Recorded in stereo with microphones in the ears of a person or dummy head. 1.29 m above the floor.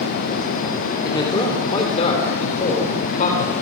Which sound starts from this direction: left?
A man speaking, at 1.1 s.